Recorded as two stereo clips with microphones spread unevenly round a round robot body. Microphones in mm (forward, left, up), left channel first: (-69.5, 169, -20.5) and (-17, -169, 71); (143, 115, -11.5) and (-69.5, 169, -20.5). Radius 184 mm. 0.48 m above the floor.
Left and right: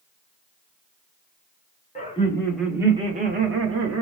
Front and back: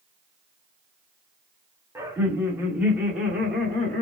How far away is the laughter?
About 1.2 m.